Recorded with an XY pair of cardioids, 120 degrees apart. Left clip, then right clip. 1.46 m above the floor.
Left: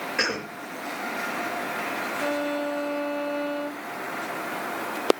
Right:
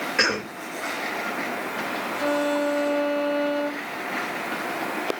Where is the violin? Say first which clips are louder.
Right 6 dB; 25° right, 1.0 m.